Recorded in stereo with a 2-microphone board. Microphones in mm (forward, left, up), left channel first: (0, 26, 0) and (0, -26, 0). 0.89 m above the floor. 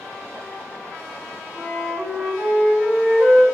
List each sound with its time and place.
1.6 s a flute: 25° right (ahead or behind), 1.8 m